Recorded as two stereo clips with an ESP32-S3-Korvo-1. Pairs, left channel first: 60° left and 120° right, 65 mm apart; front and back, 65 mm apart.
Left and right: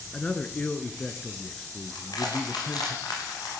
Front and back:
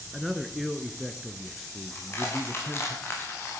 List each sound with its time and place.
0.1 s a man speaking: 95° left, 1.2 m
1.9 s crushing: 55° left, 7 m